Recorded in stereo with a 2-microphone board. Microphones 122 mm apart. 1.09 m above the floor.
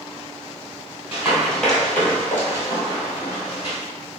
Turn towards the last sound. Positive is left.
turn(degrees=40)  # may be behind; listen again after turning